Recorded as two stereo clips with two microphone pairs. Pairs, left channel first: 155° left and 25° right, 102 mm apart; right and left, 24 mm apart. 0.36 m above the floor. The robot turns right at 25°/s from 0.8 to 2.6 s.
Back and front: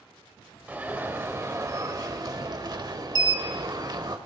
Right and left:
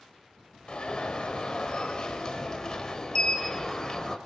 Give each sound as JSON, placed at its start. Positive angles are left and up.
{"t": 0.7, "sound": "an alarm", "azimuth_deg": -90, "distance_m": 1.1}